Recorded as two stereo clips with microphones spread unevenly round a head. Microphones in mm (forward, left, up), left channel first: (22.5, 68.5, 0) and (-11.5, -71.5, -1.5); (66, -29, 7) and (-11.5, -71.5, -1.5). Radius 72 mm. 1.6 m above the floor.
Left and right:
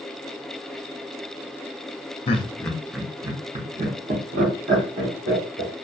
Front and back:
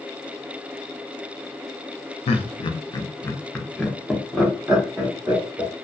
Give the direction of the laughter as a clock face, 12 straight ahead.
11 o'clock.